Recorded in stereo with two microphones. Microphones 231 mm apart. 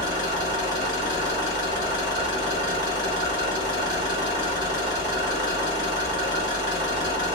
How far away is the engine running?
About 1.6 m.